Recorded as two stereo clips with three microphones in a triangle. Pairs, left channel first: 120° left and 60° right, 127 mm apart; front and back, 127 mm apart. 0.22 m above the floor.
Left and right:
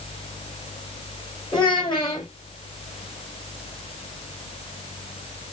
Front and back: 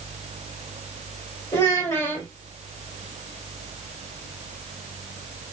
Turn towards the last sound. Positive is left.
turn(degrees=70)